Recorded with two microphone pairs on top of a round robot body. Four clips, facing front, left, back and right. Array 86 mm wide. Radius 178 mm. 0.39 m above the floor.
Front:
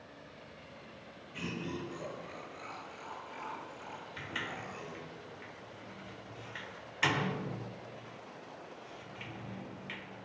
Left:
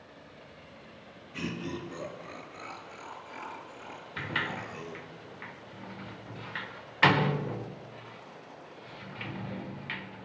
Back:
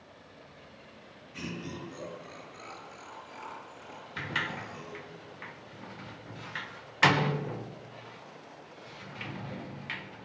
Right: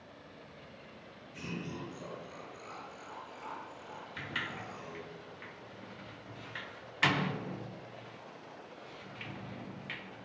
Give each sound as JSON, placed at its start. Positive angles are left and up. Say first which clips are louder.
{"t": 1.3, "sound": "laughter", "louder": "left 5 dB, even", "azimuth_deg": 100, "distance_m": 7.5}
{"t": 4.2, "sound": "a sliding door", "louder": "left 7 dB, back 7 dB", "azimuth_deg": 130, "distance_m": 1.1}